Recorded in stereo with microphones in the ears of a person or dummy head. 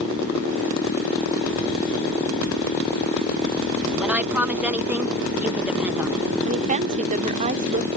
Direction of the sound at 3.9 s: 5° right (ahead or behind).